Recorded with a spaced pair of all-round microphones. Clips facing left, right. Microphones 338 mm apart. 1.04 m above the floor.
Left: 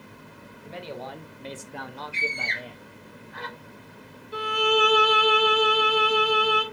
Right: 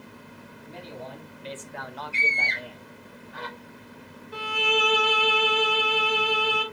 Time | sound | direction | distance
0.7 | a man speaking | 75° left (ahead or behind) | 0.9 m
2.1 | a scream | 10° right (ahead or behind) | 3.5 m
4.3 | a violin | 30° left (ahead or behind) | 1.5 m